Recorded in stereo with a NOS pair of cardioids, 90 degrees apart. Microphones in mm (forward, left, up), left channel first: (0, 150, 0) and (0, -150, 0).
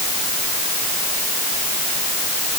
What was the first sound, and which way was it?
Only background noise.